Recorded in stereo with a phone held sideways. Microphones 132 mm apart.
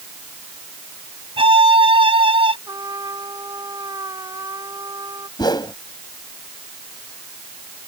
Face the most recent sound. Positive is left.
turn(degrees=30)  # may be behind; listen again after turning